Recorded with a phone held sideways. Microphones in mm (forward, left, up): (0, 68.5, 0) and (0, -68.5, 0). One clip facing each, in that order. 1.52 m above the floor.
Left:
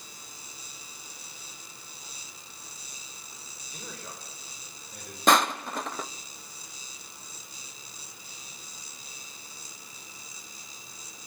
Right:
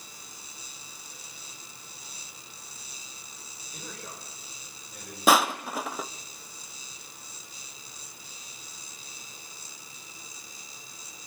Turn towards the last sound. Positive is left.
turn(degrees=-5)  # may be behind; listen again after turning